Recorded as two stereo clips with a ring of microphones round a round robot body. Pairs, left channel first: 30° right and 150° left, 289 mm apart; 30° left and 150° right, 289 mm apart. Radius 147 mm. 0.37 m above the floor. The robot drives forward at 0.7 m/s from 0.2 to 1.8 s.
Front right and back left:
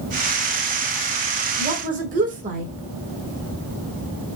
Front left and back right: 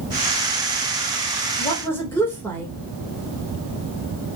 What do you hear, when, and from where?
1.6 s a woman speaking: 95° left, 1.3 m; by 2.7 s 105° left, 1.3 m